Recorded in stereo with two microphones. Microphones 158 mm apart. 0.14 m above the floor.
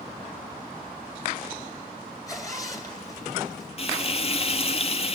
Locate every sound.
2.3 s a zipper: 20° left (ahead or behind), 2 m
3.8 s frying: 40° left (ahead or behind), 1.2 m